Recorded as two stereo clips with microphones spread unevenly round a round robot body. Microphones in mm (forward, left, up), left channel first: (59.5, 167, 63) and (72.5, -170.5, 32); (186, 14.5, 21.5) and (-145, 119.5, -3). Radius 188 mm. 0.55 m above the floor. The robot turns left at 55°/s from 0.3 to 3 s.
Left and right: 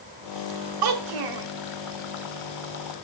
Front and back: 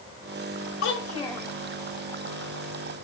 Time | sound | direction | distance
0.8 | a child speaking | 75° right | 1.3 m